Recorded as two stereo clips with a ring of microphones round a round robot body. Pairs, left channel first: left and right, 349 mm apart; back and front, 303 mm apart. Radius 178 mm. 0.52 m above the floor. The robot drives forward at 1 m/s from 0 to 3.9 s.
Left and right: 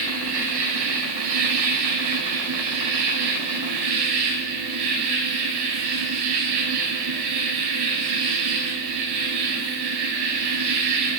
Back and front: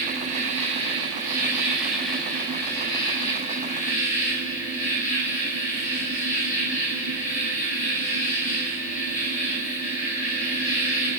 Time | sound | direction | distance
0.0 | an insect | 65° right | 5.5 m